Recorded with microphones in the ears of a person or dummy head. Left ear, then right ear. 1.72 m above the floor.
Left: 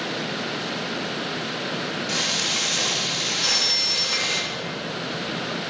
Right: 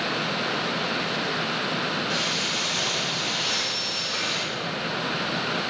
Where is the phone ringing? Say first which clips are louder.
Left 5 dB; 65° left (ahead or behind), 1.7 m.